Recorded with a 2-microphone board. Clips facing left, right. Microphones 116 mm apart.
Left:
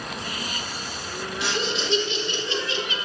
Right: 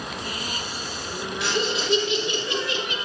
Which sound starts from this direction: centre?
Laughter, at 1.4 s.